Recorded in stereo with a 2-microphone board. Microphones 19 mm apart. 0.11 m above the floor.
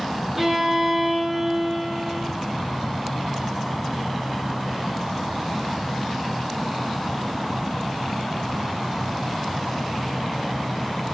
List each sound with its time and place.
0.4 s a violin: 20° right (ahead or behind), 2.5 m